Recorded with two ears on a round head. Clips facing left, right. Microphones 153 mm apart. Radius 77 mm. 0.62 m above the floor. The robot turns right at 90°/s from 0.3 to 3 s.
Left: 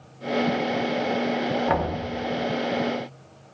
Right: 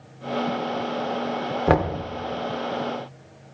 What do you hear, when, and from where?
1.7 s knocking: 60° right, 1.0 m; by 2.0 s 30° right, 1.0 m